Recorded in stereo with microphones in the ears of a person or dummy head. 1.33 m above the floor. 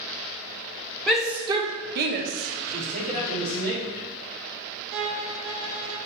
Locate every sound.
1.1 s a shout: 5° right (ahead or behind), 1.1 m; by 3.7 s 65° right (ahead or behind), 2.5 m
2.7 s a man speaking: 80° right, 3 m
4.9 s a violin: 80° right, 0.9 m